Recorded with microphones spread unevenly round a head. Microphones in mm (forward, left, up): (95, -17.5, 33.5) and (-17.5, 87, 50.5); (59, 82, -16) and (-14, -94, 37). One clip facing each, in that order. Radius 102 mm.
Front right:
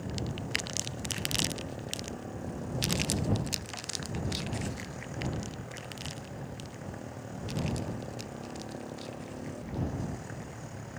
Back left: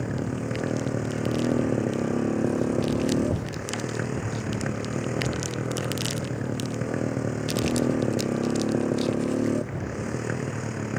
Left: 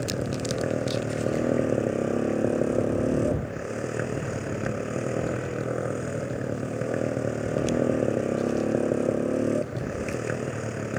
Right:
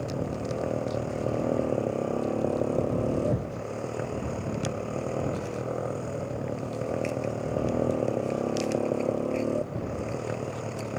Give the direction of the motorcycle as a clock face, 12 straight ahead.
7 o'clock.